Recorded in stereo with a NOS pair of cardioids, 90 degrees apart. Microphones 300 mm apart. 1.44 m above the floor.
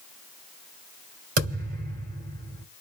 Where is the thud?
55° right, 2.5 m.